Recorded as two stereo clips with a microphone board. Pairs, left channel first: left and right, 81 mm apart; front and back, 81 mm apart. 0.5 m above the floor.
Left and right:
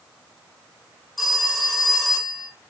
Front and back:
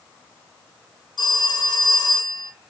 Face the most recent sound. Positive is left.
turn(degrees=0)